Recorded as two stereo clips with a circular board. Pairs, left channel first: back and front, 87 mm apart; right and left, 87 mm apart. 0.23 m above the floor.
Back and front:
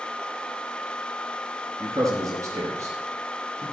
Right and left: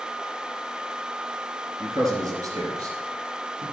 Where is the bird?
I don't hear a bird.